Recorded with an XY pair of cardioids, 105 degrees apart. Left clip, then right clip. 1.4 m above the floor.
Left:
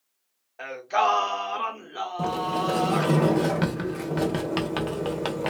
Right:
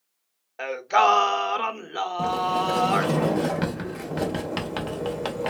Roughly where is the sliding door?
Ahead.